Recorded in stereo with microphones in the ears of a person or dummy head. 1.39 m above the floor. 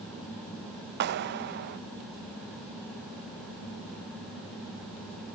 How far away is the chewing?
I don't hear chewing.